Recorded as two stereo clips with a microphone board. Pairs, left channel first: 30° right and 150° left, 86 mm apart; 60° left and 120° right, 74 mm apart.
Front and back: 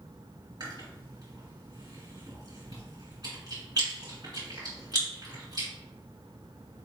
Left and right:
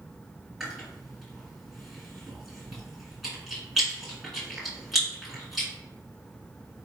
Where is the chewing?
150° left, 2.0 m.